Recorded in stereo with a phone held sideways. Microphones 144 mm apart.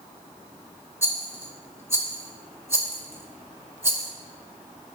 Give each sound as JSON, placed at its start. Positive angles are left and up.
{"t": 1.0, "sound": "a rattle", "side_deg": -20, "distance_m": 0.7}